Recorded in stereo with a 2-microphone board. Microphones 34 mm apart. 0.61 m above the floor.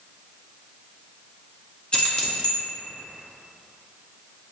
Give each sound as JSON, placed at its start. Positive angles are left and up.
{"t": 1.9, "sound": "keys jangling", "side_deg": 30, "distance_m": 0.6}